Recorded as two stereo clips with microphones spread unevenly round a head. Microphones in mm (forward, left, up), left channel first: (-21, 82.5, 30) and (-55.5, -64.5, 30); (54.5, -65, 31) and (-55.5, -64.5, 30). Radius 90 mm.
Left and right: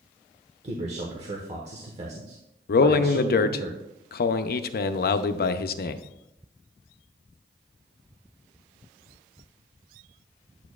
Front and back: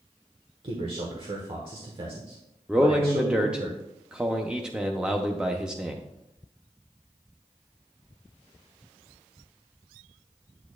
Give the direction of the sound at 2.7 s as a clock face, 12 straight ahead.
9 o'clock.